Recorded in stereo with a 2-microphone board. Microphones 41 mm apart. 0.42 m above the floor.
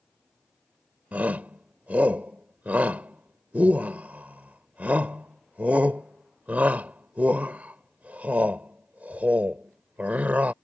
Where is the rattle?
I don't hear a rattle.